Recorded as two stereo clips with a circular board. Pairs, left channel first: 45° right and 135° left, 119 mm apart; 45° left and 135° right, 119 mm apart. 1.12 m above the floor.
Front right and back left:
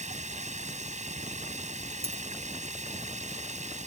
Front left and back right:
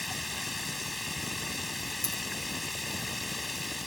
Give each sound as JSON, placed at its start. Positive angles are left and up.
{"t": 0.0, "sound": "running water", "azimuth_deg": 135}
{"t": 2.0, "sound": "a dropped coin", "azimuth_deg": 100}